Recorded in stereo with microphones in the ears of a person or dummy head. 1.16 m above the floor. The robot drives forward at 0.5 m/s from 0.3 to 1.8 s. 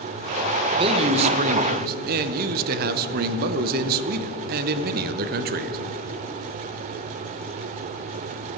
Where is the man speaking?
25° right (ahead or behind), 0.9 m; by 5.8 s 45° right (ahead or behind), 0.6 m.